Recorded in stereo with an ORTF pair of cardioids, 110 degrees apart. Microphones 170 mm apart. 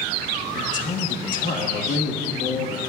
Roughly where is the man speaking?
Ahead left.